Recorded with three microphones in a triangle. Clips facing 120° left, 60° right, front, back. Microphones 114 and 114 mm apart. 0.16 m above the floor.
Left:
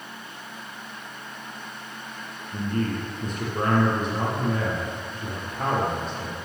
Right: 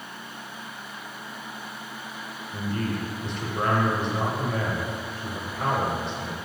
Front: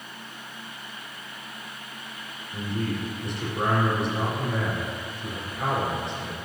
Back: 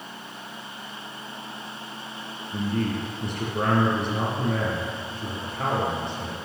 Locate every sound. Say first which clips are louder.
2.5 s a man speaking: left 2 dB, back 3 dB; 165° left, 4 m